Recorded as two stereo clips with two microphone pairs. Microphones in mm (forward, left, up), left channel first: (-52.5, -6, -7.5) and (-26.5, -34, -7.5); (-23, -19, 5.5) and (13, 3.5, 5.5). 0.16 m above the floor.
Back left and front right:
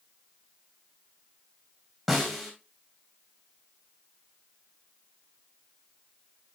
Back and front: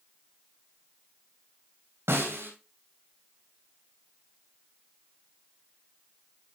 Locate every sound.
2.1 s a snare drum: 35° left, 3.5 m